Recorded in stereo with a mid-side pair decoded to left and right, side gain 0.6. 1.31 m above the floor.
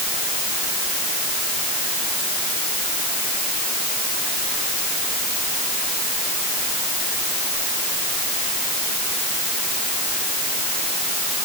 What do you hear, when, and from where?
Only background noise.